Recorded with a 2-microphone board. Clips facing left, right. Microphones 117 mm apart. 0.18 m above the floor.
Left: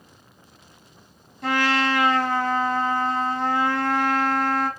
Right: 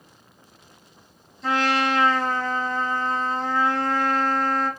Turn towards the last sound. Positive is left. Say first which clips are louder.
# even
turn(degrees=70)  # may be behind; listen again after turning